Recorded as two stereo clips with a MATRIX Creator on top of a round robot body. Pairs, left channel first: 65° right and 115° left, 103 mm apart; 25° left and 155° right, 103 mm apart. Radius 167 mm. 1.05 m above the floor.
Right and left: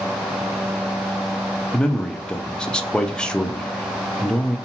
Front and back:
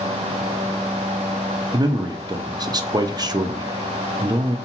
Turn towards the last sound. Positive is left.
turn(degrees=-145)